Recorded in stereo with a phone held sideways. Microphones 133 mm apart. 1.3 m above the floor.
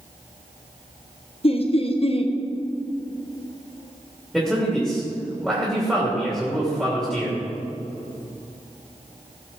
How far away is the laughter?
About 1.2 m.